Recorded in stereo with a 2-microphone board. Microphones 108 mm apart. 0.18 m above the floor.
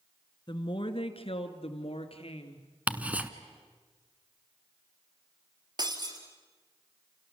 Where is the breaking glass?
45° right (ahead or behind), 2.5 m.